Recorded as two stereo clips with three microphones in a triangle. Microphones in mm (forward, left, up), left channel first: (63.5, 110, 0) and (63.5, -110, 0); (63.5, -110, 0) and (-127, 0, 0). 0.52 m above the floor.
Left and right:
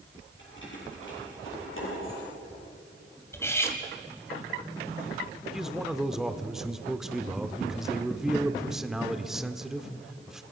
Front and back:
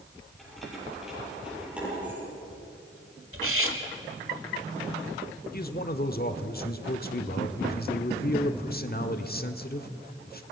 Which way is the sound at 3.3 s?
170° left.